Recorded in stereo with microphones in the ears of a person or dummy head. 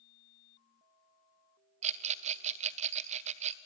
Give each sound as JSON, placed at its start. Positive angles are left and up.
{"t": 1.8, "sound": "a rattle", "side_deg": -40, "distance_m": 0.6}